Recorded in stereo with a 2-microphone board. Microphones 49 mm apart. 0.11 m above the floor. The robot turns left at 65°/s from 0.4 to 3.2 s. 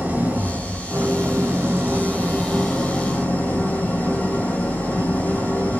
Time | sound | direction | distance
0.0 | an engine running | 35° right | 1.2 m